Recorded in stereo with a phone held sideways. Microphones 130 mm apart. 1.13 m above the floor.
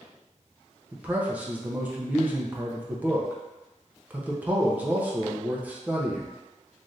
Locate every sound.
0.9 s a man speaking: 15° right (ahead or behind), 0.6 m